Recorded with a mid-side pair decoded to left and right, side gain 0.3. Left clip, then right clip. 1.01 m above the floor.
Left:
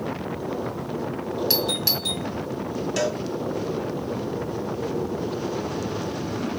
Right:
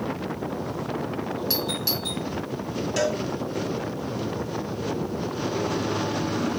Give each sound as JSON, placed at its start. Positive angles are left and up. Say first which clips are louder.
{"t": 1.5, "sound": "a doorbell", "louder": "left 4 dB", "azimuth_deg": 55, "distance_m": 1.7}
{"t": 3.0, "sound": "a cowbell", "louder": "right 1 dB", "azimuth_deg": 15, "distance_m": 2.5}